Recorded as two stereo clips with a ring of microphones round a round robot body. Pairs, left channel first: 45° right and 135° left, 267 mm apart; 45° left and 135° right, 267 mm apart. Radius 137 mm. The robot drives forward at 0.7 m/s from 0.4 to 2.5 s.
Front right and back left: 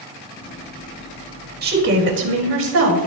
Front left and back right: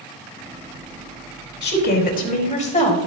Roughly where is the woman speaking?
Left.